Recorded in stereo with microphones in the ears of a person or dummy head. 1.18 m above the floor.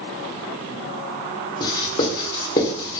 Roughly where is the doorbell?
No doorbell in this recording.